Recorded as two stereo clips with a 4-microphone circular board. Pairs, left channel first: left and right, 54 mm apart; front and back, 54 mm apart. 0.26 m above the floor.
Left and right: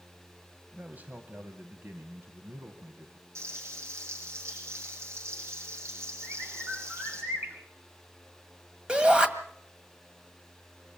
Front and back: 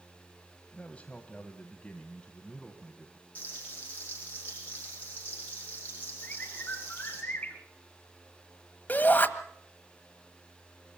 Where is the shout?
30° right, 1.7 m.